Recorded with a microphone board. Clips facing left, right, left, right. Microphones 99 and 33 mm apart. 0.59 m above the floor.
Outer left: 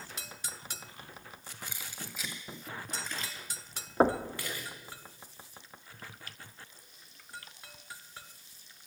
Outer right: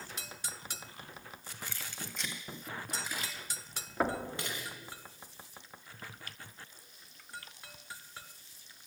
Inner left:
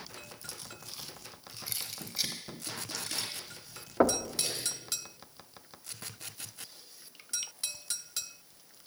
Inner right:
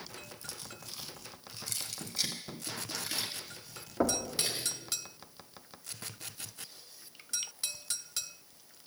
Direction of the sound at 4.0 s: 35° left (ahead or behind).